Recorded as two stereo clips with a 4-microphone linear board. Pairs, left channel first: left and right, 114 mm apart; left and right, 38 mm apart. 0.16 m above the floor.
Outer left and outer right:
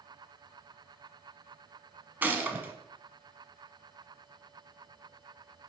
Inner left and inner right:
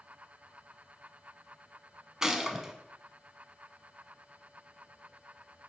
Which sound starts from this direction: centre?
A gunshot, at 2.2 s.